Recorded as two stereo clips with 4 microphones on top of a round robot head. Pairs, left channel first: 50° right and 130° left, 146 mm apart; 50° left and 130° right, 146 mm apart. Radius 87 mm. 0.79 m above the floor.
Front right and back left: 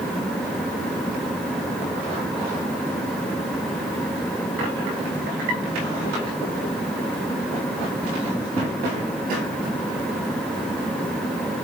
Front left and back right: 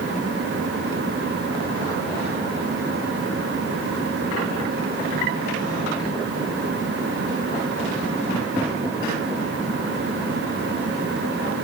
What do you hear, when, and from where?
Only background noise.